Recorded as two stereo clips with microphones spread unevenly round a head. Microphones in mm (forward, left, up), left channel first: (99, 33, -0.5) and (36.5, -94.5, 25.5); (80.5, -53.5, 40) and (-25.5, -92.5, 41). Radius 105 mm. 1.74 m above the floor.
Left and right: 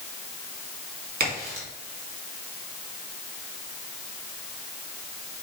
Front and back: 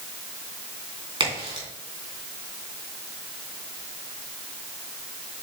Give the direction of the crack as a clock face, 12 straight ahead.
4 o'clock.